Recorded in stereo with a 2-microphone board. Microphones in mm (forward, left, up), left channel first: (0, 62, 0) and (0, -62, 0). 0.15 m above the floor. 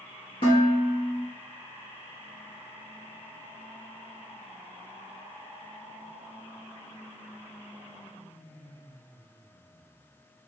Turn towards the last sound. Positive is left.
turn(degrees=45)  # may be behind; listen again after turning